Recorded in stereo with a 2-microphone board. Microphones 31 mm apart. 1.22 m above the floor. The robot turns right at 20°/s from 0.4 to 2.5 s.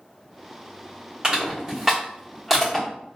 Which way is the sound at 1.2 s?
35° right (ahead or behind).